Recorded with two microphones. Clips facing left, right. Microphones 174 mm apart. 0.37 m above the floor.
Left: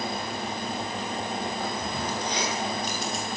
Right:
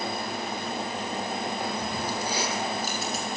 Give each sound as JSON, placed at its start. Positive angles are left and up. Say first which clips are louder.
{"t": 1.6, "sound": "keys jangling", "louder": "even", "side_deg": -10, "distance_m": 8.5}